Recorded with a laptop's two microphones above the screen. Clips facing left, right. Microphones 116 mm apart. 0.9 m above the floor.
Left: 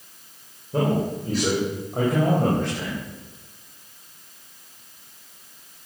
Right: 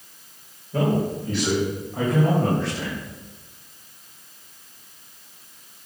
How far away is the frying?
No frying in this recording.